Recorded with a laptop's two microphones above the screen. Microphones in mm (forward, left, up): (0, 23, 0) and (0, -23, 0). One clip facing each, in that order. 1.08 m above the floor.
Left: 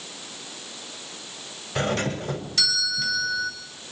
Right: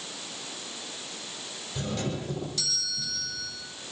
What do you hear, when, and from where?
1.8 s a doorbell: 80° left, 5.5 m